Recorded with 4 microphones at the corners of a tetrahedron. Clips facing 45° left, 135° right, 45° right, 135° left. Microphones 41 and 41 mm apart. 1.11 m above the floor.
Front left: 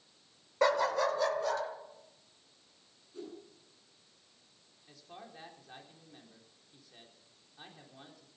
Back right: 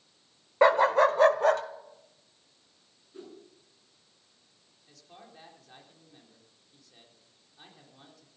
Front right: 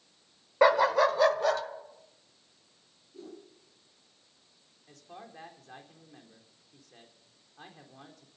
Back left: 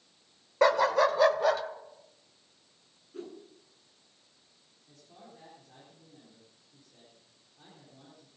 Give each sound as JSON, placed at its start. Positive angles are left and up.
{"t": 0.6, "sound": "a dog barking", "azimuth_deg": -120, "distance_m": 0.9}
{"t": 3.1, "sound": "a whoosh", "azimuth_deg": 160, "distance_m": 9.0}
{"t": 4.9, "sound": "a man speaking", "azimuth_deg": -35, "distance_m": 4.0}